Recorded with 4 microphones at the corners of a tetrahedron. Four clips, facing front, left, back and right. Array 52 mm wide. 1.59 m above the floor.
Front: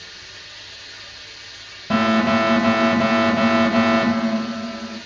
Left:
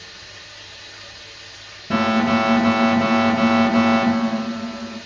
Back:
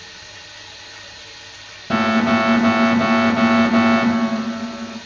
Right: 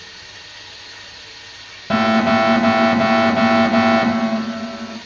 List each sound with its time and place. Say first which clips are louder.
0.0 s running water: right 2 dB, back 1 dB; 115° right, 1.2 m
1.9 s an alarm: right 3 dB, back 1 dB; 85° right, 1.4 m